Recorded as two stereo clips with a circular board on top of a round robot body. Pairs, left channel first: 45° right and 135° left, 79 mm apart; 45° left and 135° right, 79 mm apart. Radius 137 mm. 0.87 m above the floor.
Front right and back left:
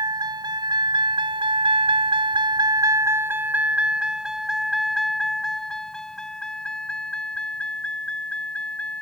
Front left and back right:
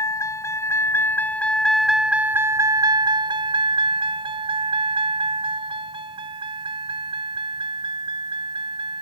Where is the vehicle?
95° left; by 9.0 s 120° right.